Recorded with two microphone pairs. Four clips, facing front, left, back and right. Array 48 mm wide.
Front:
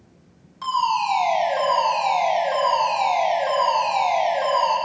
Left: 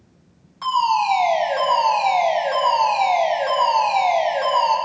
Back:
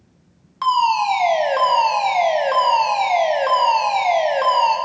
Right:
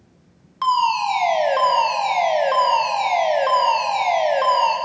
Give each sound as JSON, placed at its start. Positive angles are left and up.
{"t": 0.6, "sound": "a fire alarm", "azimuth_deg": -145, "distance_m": 4.5}